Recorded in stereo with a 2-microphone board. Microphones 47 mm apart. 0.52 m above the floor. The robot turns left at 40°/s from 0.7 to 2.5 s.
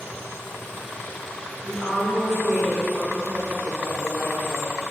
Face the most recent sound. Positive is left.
turn(degrees=-90)